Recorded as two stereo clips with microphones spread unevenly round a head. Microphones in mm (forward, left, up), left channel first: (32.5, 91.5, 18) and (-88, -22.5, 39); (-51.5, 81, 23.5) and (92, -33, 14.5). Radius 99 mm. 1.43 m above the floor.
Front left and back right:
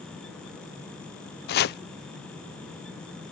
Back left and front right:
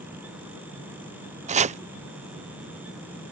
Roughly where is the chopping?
Ahead.